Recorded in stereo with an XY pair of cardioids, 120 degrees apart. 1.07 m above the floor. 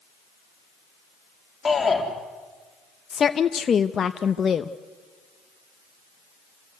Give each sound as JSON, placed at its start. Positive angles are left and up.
{"t": 1.6, "sound": "a shout", "azimuth_deg": 20, "distance_m": 3.0}
{"t": 3.1, "sound": "a woman speaking", "azimuth_deg": 35, "distance_m": 0.7}